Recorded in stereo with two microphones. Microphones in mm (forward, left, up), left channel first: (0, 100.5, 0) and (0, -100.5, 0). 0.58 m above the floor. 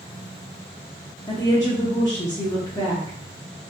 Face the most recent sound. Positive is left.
turn(degrees=20)  # may be behind; listen again after turning